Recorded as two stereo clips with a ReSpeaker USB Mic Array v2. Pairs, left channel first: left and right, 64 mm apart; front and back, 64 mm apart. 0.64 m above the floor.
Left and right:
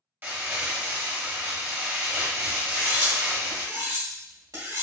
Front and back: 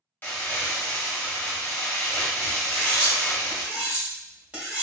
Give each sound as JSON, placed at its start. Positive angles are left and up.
{"t": 0.2, "sound": "crumpling", "azimuth_deg": -45, "distance_m": 1.0}
{"t": 2.6, "sound": "cutlery clinking", "azimuth_deg": -110, "distance_m": 1.7}